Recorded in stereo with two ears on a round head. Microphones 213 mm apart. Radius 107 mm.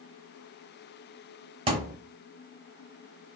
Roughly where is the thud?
Right.